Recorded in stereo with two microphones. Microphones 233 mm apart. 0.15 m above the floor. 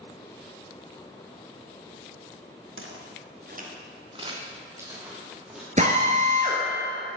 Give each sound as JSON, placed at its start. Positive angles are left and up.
{"t": 2.8, "sound": "footsteps", "side_deg": -65, "distance_m": 1.7}
{"t": 5.8, "sound": "a drill", "side_deg": -35, "distance_m": 1.4}